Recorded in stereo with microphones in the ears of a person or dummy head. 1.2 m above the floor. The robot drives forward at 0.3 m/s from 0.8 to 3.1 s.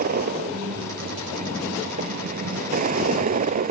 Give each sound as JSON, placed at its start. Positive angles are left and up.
{"t": 0.0, "sound": "a vehicle", "side_deg": -55}